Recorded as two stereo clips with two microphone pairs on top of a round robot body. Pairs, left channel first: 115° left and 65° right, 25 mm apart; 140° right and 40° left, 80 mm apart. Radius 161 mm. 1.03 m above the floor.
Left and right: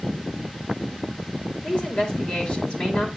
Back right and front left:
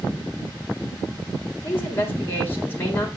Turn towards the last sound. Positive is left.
turn(degrees=150)